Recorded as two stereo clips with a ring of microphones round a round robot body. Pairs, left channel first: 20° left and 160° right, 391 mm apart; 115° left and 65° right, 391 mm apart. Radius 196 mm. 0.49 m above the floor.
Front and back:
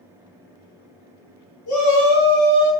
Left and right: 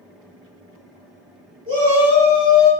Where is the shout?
Straight ahead, 1.2 m; by 2.7 s 85° left, 1.0 m.